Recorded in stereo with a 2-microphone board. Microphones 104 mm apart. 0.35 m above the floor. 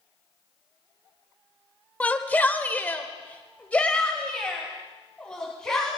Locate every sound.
2.0 s a shout: 15° left (ahead or behind), 1.3 m; by 5.9 s 10° left (ahead or behind), 3.5 m